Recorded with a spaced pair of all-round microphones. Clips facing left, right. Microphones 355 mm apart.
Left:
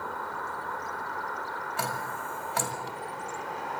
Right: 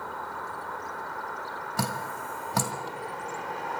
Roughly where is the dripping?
Right.